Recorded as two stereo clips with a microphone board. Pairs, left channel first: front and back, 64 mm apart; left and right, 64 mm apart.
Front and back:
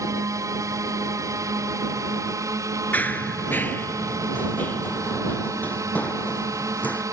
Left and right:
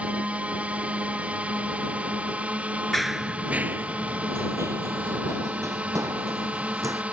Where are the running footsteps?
5° left; by 7.0 s 65° right.